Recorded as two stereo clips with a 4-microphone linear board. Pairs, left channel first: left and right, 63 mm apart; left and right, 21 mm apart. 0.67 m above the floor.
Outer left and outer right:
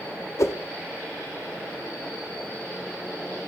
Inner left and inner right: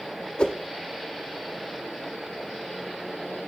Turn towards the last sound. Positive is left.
turn(degrees=50)  # may be behind; listen again after turning